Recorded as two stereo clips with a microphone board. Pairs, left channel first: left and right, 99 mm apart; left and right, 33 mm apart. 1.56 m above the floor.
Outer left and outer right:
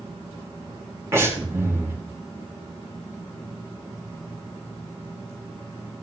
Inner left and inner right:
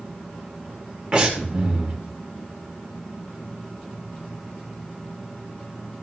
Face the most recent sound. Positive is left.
turn(degrees=-25)  # may be behind; listen again after turning